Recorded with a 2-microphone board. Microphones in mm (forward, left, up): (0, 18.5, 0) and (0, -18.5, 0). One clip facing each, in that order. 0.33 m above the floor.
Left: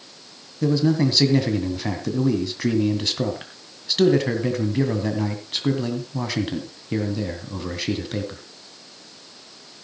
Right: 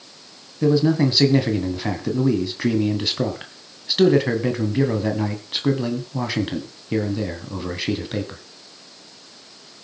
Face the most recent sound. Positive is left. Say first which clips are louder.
# right 2 dB
turn(degrees=-10)  # may be behind; listen again after turning